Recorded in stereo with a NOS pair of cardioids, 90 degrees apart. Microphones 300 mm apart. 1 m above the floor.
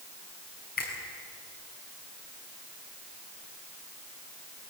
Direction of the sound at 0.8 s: 30° left.